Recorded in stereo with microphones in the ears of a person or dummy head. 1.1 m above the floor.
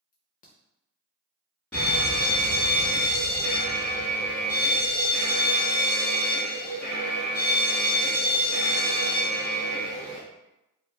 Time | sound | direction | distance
0.1 | a crack | 45° left (ahead or behind) | 0.6 m
1.7 | a fire alarm | 15° left (ahead or behind) | 1.3 m